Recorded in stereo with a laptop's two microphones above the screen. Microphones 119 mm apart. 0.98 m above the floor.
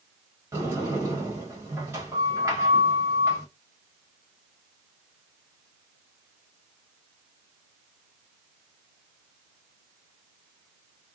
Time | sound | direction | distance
0.5 | a sliding door | 20° right (ahead or behind) | 1.6 m